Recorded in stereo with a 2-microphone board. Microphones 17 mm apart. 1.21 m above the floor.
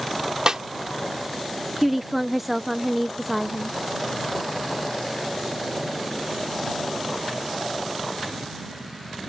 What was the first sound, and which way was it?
A snare drum, 35° right (ahead or behind).